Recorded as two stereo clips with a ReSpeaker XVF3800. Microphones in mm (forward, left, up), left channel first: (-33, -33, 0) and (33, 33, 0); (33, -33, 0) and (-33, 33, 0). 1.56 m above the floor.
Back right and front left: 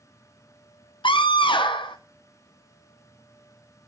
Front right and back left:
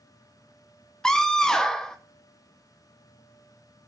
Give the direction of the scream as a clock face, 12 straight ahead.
4 o'clock.